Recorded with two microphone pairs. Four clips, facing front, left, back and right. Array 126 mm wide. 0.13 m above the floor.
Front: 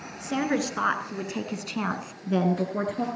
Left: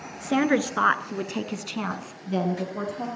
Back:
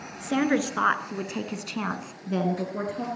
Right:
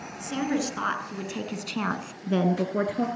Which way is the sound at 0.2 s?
110° left.